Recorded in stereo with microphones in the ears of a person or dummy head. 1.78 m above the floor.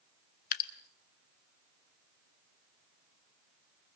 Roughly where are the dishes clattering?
No dishes clattering in this recording.